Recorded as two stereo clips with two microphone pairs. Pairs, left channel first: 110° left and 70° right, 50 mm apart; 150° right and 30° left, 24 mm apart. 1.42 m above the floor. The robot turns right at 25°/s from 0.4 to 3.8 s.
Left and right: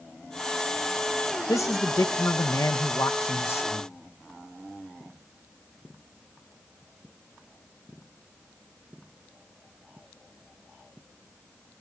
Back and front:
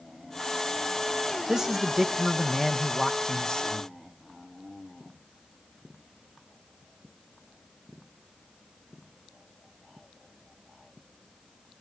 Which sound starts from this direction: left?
A man speaking, at 1.5 s.